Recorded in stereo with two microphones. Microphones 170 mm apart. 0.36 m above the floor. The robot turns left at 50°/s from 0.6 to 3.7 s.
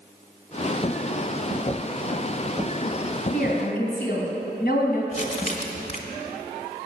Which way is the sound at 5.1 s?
45° left (ahead or behind).